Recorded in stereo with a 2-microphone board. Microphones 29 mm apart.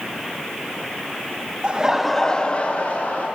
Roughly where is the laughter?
Right.